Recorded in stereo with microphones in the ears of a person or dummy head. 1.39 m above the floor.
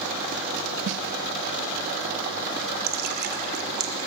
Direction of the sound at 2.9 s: 55° right (ahead or behind).